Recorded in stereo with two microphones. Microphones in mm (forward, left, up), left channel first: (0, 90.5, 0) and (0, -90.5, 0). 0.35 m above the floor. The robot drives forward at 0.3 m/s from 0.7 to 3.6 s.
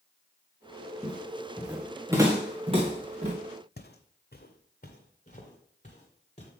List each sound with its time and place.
1.0 s footsteps: 5° left (ahead or behind), 2 m; by 3.3 s 45° right (ahead or behind), 1.8 m
3.8 s footsteps: 65° left (ahead or behind), 0.7 m; by 6.5 s 40° left (ahead or behind), 3 m